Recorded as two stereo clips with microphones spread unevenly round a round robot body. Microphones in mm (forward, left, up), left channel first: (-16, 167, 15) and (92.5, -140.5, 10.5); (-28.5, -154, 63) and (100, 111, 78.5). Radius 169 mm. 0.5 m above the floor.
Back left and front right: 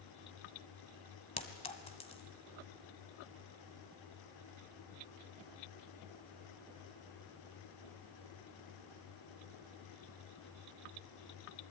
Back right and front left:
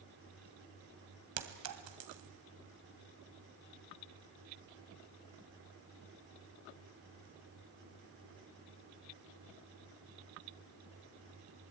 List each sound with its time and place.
1.4 s a clink: 35° left, 1.8 m